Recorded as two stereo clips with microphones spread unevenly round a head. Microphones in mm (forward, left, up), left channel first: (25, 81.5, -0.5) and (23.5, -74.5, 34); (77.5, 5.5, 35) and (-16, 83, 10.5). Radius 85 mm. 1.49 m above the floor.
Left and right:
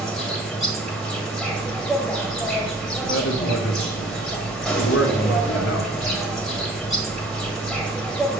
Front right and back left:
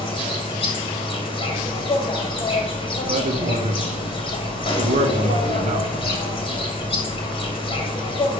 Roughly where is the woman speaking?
Left.